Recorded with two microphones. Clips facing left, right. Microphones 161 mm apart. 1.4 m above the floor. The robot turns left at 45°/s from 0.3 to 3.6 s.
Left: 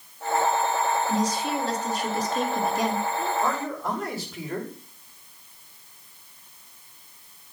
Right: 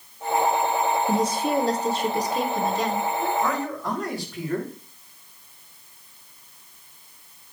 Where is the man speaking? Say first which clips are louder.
Right 2 dB; 20° left (ahead or behind), 3 m; by 4.7 s 5° left (ahead or behind), 3 m.